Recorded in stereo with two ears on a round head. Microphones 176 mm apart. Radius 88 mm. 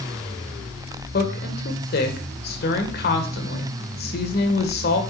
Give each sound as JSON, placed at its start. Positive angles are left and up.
{"t": 1.1, "sound": "a woman speaking", "side_deg": 55, "distance_m": 2.0}